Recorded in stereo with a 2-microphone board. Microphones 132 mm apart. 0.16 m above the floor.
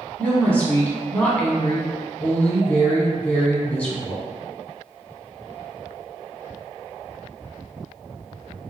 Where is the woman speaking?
10° left (ahead or behind), 1.0 m.